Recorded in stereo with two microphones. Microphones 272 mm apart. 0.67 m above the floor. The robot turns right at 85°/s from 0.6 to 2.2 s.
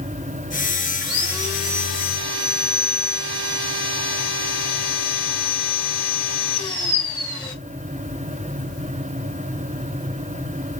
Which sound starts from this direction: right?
Sawing, at 1.0 s.